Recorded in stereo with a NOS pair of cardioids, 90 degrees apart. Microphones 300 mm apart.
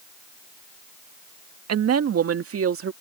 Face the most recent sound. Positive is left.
turn(degrees=-45)